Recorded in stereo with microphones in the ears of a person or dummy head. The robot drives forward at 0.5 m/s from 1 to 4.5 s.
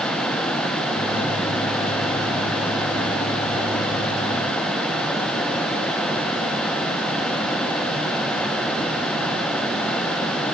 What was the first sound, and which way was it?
Only background noise.